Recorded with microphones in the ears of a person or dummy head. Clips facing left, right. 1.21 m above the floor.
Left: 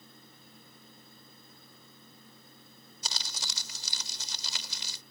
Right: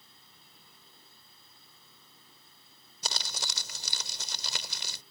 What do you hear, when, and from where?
0.0 s a fan: 45° left (ahead or behind)
3.0 s crumpling: 50° right (ahead or behind)